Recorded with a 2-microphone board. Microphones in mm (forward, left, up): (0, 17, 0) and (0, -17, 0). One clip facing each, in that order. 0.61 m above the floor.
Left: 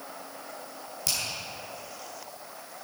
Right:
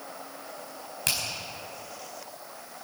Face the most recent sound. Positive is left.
turn(degrees=-50)  # may be behind; listen again after turning